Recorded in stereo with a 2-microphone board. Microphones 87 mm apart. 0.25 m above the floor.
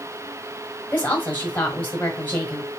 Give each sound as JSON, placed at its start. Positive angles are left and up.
{"t": 0.9, "sound": "a woman speaking", "side_deg": 20, "distance_m": 1.3}